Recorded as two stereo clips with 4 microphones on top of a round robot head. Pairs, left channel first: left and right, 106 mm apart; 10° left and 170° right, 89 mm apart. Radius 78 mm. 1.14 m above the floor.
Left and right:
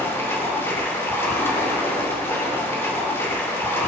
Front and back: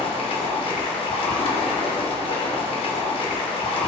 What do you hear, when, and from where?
0.0 s running water: 25° left, 3.5 m